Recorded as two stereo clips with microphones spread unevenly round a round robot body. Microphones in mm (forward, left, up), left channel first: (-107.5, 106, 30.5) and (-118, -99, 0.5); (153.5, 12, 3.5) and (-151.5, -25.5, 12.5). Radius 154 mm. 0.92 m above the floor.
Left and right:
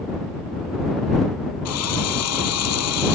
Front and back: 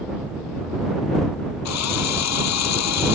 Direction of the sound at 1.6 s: 50° left.